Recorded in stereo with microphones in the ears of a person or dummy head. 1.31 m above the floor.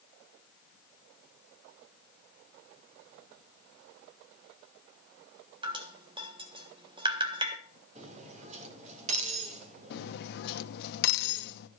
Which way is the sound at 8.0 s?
35° right (ahead or behind).